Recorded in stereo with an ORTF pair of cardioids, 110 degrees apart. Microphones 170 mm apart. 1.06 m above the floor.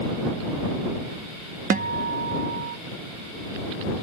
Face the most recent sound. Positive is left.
turn(degrees=-50)